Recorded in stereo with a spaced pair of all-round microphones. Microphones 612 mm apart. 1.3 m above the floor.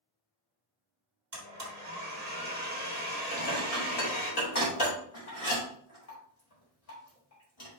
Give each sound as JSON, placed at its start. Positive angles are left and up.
{"t": 1.3, "sound": "a blender", "side_deg": -80, "distance_m": 1.8}
{"t": 3.3, "sound": "dishes clattering", "side_deg": 70, "distance_m": 2.0}